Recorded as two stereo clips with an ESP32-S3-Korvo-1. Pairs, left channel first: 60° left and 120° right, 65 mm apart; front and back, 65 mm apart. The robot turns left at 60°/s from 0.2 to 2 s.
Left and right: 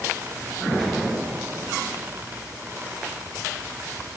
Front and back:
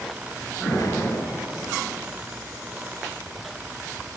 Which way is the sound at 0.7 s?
15° right.